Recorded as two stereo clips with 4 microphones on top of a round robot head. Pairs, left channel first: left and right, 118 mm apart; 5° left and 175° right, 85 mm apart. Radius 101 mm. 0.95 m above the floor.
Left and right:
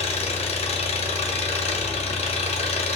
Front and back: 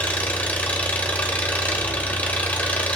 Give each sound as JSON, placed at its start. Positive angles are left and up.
{"t": 0.0, "sound": "an engine running", "azimuth_deg": 75, "distance_m": 0.9}